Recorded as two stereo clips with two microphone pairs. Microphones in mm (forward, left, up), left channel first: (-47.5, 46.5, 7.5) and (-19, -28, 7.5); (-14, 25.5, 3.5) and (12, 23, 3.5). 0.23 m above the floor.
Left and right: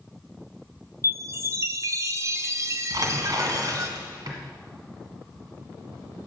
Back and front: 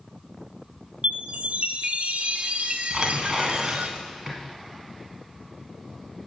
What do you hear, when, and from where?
1.0 s a chime: 20° right, 0.5 m
2.9 s tearing paper: 60° right, 1.4 m